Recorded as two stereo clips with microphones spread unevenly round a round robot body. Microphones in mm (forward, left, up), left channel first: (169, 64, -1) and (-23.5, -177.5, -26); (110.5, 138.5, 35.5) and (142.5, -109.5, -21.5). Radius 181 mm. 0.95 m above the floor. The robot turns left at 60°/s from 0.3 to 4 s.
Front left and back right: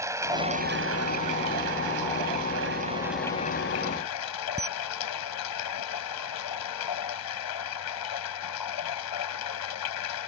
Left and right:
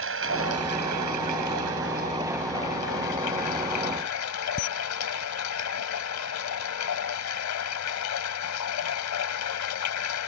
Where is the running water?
45° right; by 10.3 s 90° left.